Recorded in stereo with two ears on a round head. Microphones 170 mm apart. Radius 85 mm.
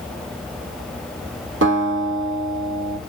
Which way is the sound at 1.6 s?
70° right (ahead or behind).